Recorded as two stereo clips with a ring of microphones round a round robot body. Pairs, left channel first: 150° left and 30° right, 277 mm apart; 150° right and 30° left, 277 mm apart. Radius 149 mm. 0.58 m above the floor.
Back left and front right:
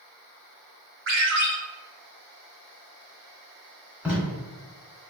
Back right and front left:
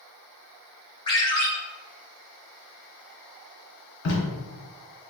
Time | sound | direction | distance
1.1 | a ringtone | 80° right | 1.9 m
4.0 | tape being pulled | 115° right | 1.4 m